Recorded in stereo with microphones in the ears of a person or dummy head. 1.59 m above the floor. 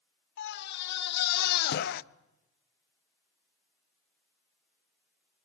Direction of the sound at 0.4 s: 65° left (ahead or behind).